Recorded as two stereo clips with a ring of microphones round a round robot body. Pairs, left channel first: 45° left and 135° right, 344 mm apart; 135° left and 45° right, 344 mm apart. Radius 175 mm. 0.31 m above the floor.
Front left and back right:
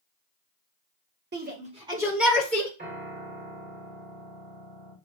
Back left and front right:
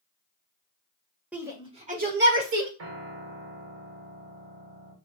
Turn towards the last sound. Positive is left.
turn(degrees=-80)